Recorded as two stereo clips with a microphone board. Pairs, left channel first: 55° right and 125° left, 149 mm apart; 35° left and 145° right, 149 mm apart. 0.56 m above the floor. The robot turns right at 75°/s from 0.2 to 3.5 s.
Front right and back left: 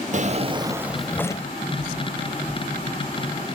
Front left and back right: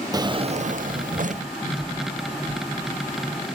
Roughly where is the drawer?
Behind left.